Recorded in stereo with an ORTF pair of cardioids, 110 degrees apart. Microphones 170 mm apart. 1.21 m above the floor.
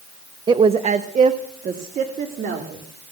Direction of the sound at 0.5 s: 25° right.